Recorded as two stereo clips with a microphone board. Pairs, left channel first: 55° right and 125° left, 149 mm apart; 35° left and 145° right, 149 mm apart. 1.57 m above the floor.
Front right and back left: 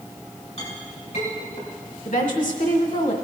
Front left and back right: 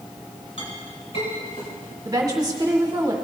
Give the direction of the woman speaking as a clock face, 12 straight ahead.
3 o'clock.